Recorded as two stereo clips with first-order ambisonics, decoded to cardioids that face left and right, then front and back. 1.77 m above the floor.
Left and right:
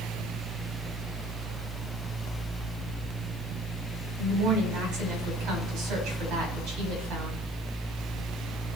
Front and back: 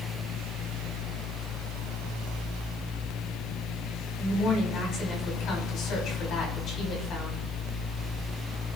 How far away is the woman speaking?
About 5.5 m.